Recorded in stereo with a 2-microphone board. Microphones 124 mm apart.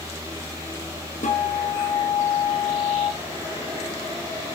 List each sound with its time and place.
1.2 s a guitar: 75° left (ahead or behind), 6 m